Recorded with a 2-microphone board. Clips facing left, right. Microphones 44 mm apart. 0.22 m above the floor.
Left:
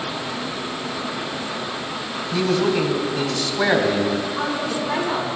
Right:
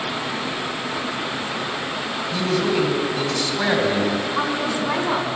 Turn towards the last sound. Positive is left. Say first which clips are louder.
# right 1 dB
turn(degrees=-35)  # may be behind; listen again after turning